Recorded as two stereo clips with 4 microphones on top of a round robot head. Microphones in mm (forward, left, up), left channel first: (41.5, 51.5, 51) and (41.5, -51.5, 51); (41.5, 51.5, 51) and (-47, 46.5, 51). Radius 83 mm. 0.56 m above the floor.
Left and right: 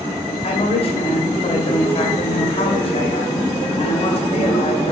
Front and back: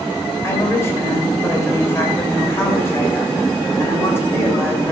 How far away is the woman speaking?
About 3 m.